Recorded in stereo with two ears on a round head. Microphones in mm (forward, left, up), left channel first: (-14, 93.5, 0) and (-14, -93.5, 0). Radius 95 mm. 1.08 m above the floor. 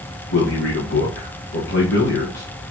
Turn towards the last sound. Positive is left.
turn(degrees=50)  # may be behind; listen again after turning